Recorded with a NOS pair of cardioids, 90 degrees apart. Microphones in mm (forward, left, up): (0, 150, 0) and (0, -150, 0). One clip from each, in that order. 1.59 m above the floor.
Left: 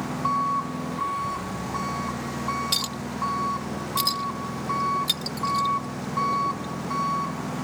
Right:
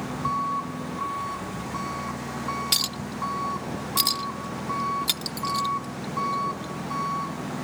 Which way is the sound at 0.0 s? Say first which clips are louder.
Left 2 dB; 20° left.